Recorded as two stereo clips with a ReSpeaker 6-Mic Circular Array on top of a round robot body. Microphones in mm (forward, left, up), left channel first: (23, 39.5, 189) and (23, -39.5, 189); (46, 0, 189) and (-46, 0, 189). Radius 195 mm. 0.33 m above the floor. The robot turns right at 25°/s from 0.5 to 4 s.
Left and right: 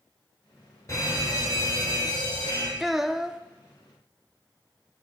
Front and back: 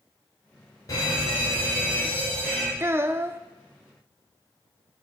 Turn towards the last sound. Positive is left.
turn(degrees=-145)